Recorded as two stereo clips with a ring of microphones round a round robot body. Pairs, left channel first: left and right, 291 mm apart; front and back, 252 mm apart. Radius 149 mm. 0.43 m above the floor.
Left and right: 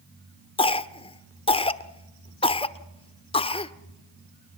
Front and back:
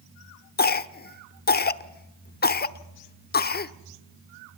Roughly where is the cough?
Ahead left.